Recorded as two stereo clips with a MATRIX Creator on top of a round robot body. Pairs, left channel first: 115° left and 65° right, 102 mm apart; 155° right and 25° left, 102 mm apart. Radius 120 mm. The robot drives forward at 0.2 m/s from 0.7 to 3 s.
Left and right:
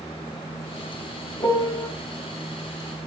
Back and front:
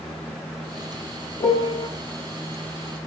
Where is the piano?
155° left, 1.7 m.